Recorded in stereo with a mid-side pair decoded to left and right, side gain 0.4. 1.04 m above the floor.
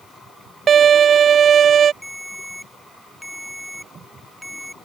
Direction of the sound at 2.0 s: 5° right.